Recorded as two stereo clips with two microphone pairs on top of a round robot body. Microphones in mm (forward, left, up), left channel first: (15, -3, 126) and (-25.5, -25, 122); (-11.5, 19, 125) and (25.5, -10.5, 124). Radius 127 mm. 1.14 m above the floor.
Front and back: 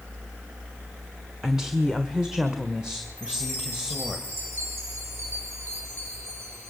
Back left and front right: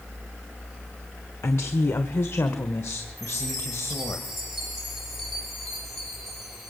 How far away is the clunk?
I don't hear a clunk.